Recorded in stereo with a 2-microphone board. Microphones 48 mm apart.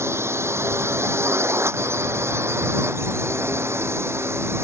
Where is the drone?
65° right (ahead or behind); by 4.6 s 60° right (ahead or behind).